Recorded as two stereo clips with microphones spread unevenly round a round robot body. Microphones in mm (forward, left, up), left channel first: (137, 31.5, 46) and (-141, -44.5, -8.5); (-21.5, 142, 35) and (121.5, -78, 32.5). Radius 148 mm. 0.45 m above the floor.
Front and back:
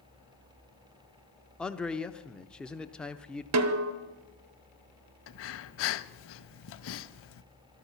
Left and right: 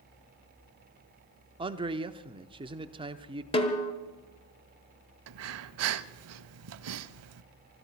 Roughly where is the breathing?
Ahead right.